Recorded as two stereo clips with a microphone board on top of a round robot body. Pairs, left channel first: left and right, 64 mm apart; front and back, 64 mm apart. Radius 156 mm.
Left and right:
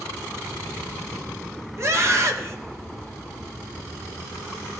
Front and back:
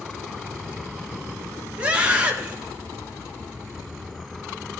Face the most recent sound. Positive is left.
turn(degrees=-115)